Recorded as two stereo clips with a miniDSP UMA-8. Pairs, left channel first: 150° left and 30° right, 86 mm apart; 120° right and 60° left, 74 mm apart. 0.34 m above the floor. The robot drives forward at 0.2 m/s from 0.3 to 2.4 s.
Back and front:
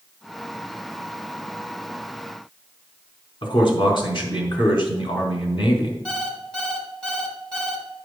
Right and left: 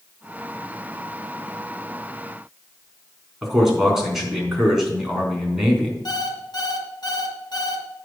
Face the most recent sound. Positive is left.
turn(degrees=-130)